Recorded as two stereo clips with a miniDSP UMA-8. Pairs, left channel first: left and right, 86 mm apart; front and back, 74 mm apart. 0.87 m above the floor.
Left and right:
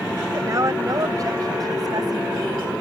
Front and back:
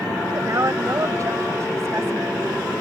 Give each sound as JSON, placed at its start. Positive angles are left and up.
{"t": 0.3, "sound": "a woman speaking", "azimuth_deg": -140}